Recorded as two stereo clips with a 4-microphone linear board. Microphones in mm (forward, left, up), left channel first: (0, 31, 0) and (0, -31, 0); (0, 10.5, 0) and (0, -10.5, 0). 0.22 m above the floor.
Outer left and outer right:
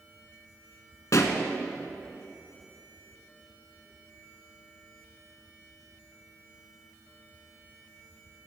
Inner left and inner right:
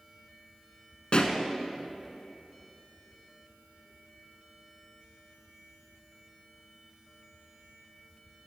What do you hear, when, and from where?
1.1 s a pop: 55° left (ahead or behind), 0.9 m